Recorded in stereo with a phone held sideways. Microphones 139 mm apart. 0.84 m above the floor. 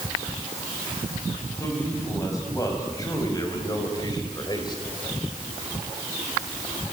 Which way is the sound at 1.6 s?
20° left (ahead or behind).